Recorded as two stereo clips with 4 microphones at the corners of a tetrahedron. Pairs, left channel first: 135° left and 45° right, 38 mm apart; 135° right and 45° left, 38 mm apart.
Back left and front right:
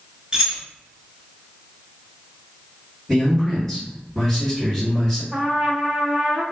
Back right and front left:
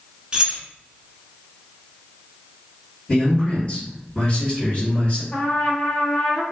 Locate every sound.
0.3 s keys jangling: 5° right, 0.9 m
3.1 s a man speaking: 150° right, 1.9 m
5.3 s a trumpet: 110° right, 1.5 m